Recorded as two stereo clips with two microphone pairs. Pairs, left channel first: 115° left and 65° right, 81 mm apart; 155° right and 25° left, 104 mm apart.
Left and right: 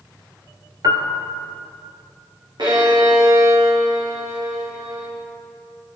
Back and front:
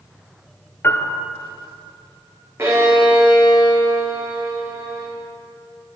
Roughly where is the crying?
No crying in this recording.